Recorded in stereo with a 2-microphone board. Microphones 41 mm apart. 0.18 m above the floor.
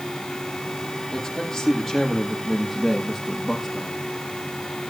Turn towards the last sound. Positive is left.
turn(degrees=-5)  # may be behind; listen again after turning